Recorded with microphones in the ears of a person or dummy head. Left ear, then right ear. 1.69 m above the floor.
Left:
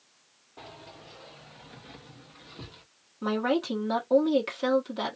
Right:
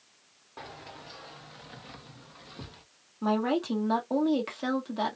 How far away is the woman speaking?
About 1.2 m.